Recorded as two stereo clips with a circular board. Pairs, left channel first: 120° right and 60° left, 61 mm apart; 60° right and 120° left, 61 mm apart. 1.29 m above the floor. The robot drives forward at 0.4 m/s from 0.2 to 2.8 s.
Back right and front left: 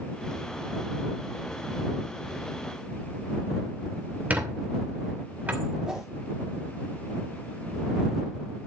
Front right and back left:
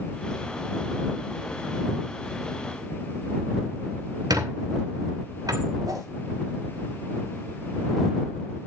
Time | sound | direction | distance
4.3 | a squeak | 125° left | 2.5 m
5.9 | a whoosh | 140° left | 3.5 m